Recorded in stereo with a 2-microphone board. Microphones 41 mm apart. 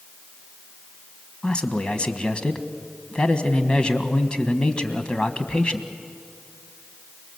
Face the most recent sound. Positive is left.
turn(degrees=25)  # may be behind; listen again after turning